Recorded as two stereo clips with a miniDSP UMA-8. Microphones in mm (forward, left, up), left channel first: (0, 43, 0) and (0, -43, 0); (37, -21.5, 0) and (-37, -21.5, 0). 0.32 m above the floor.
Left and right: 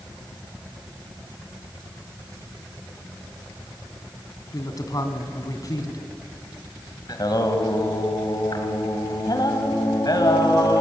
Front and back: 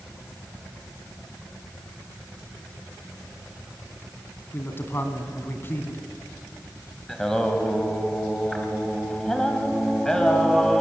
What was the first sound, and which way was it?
A man speaking, 50° left.